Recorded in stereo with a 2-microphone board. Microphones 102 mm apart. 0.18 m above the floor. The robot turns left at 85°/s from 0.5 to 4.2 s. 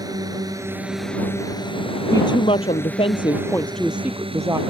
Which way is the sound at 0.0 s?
135° right.